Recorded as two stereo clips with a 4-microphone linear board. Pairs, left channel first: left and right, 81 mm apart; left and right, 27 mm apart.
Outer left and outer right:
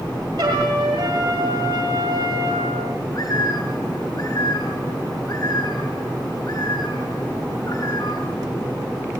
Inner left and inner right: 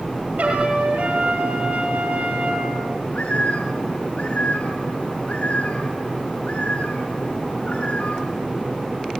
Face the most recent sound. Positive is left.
turn(degrees=45)  # may be behind; listen again after turning